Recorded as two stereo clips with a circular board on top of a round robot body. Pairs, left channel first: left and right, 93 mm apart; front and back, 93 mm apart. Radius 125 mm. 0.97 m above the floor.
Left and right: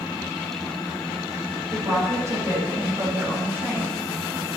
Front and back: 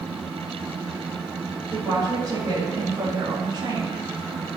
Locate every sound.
1.7 s a woman speaking: 130° right, 8.5 m; by 4.0 s 150° right, 7 m